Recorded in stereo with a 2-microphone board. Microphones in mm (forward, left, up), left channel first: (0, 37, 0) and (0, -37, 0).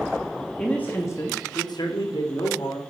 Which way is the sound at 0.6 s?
10° left (ahead or behind).